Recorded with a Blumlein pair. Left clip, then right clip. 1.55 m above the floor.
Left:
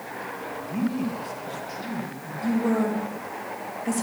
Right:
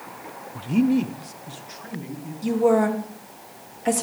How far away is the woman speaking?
About 3 m.